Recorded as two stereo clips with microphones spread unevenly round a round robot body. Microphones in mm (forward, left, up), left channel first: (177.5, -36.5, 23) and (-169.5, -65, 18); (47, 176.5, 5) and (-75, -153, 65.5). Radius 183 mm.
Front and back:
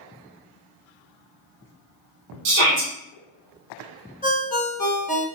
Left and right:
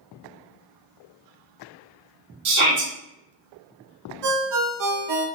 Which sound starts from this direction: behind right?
A shout, at 2.5 s.